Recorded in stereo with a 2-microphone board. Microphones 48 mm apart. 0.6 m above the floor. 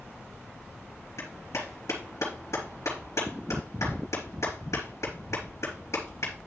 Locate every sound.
1.2 s a clap: 75° left (ahead or behind), 4 m